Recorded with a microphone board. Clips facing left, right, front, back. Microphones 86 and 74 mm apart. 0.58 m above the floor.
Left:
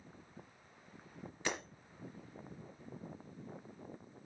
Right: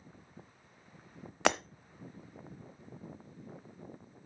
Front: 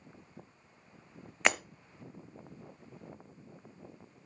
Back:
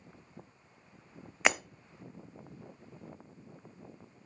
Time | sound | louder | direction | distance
1.4 | breaking glass | right 11 dB, back 1 dB | 95° right | 0.8 m